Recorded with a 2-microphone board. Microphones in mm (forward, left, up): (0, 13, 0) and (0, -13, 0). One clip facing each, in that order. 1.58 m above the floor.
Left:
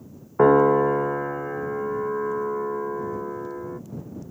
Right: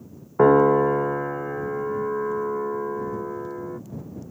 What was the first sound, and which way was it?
A piano, centre (ahead or behind).